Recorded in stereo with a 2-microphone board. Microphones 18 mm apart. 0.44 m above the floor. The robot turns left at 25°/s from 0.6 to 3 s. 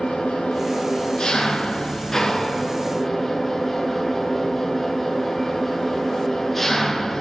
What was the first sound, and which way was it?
An engine running, 65° left.